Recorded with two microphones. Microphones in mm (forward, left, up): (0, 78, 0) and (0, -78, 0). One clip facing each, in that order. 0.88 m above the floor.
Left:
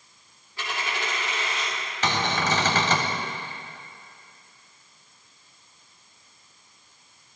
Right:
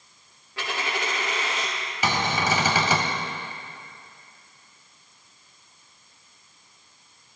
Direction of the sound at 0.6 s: 80° right.